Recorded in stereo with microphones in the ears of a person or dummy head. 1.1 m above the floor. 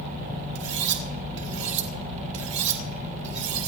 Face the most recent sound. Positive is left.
turn(degrees=-70)  # may be behind; listen again after turning